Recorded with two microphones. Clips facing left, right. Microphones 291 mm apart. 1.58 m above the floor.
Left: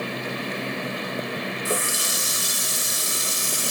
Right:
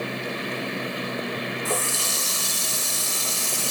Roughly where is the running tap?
Centre.